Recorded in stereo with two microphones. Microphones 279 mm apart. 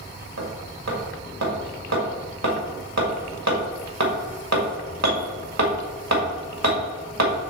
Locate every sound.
0.4 s hammering: 70° right (ahead or behind), 1.8 m